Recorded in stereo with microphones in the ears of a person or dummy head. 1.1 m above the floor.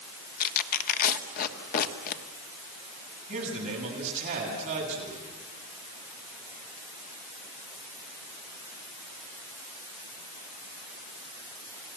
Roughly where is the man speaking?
Right.